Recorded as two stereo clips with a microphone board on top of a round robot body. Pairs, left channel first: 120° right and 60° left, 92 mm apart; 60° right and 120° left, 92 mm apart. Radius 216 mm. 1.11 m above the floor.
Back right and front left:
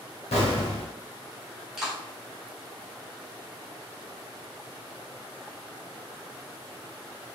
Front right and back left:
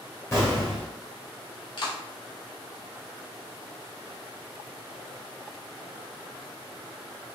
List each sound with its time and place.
0.3 s an explosion: 130° right, 0.6 m
1.8 s a clap: 25° right, 1.4 m